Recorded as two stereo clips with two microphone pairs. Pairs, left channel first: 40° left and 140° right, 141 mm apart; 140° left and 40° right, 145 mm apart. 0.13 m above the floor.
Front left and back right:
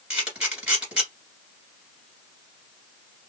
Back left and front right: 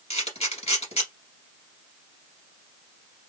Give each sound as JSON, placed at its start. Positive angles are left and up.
{"t": 0.1, "sound": "a camera shutter", "azimuth_deg": 140, "distance_m": 1.9}